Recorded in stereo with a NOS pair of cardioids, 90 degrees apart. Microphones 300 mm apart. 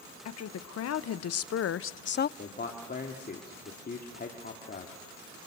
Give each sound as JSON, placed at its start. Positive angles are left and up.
{"t": 0.2, "sound": "a woman speaking", "azimuth_deg": 60, "distance_m": 1.8}
{"t": 2.4, "sound": "a man speaking", "azimuth_deg": 30, "distance_m": 3.0}